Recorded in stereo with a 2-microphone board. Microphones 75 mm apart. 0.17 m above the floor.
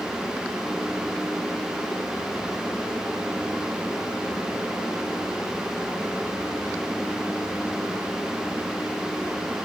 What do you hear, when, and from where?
Only background noise.